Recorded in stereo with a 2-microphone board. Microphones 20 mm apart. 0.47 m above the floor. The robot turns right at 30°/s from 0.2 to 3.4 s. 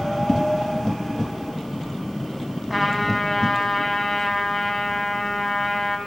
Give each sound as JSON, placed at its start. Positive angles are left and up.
{"t": 0.3, "sound": "a whoosh", "side_deg": 35, "distance_m": 0.7}
{"t": 2.7, "sound": "a trumpet", "side_deg": -10, "distance_m": 1.3}